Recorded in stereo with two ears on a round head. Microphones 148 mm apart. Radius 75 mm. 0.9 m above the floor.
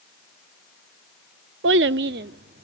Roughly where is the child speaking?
Right.